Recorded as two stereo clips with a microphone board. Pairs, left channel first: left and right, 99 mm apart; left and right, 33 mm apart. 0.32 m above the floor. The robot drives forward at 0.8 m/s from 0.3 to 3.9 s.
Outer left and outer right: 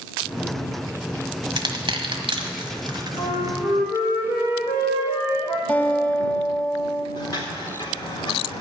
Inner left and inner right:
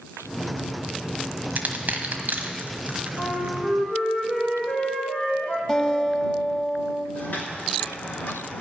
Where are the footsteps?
40° left (ahead or behind), 4.5 m; by 8.6 s 50° left (ahead or behind), 4 m.